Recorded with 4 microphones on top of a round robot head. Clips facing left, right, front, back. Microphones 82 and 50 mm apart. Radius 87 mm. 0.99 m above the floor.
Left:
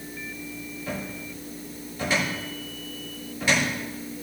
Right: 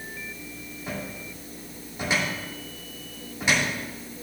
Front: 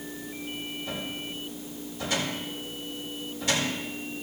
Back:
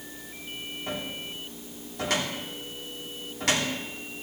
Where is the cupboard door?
160° right, 3 m.